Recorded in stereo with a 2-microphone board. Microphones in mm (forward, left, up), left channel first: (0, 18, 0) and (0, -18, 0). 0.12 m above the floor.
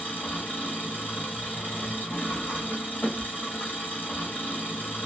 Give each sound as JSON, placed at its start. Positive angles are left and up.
{"t": 0.0, "sound": "an engine running", "side_deg": 75, "distance_m": 1.8}